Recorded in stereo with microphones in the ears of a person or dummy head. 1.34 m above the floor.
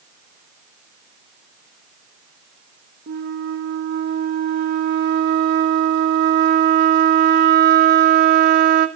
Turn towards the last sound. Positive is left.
turn(degrees=-50)  # may be behind; listen again after turning